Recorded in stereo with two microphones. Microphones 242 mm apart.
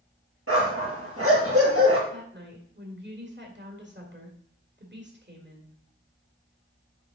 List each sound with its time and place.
0.5 s a dog barking: 75° right (ahead or behind), 2.5 m
2.1 s a woman speaking: 50° right (ahead or behind), 2.0 m